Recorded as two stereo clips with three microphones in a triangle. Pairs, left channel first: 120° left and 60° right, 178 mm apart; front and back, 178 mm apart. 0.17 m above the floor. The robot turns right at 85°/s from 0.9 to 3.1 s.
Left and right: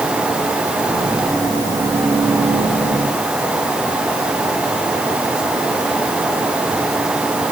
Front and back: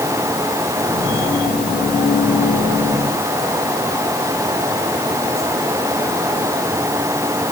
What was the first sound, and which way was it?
Only background noise.